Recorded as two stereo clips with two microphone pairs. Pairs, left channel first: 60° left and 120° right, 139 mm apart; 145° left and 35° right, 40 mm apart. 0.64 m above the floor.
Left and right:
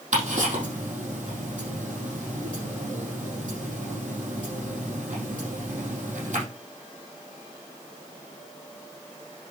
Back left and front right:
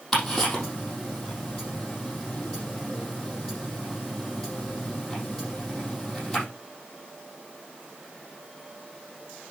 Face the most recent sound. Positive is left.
turn(degrees=-145)